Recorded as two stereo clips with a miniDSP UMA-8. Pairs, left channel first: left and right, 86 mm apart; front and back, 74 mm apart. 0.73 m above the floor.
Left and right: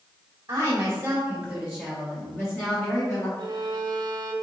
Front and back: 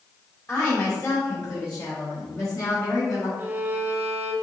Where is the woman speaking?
55° right, 1.3 m; by 3.3 s 40° left, 1.9 m.